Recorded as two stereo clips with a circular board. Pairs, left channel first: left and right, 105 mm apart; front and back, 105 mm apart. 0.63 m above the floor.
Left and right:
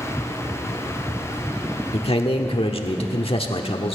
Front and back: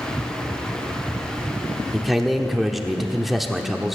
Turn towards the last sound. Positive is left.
turn(degrees=90)